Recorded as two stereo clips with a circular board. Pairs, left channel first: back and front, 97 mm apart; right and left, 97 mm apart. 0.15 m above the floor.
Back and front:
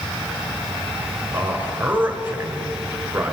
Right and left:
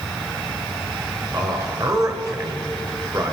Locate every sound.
1.3 s a man speaking: 65° left, 1.5 m